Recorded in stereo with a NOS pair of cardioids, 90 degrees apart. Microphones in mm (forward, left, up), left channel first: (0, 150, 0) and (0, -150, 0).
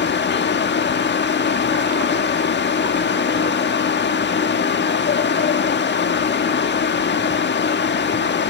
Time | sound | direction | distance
0.0 | a fan | 35° left | 1.6 m